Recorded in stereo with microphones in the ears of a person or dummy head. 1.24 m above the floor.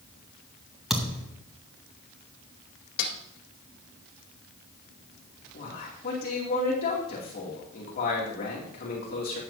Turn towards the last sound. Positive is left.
turn(degrees=45)  # may be behind; listen again after turning